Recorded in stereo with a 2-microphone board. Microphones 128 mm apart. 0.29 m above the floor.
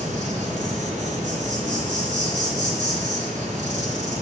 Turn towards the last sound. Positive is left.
turn(degrees=-70)  # may be behind; listen again after turning